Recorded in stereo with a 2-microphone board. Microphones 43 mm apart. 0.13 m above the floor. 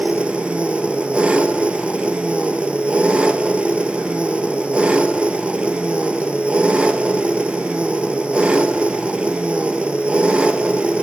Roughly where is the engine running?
Right.